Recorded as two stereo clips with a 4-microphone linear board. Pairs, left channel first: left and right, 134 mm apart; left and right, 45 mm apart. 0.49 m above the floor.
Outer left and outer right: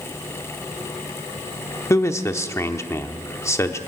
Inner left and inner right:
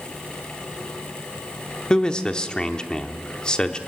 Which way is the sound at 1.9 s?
20° left (ahead or behind).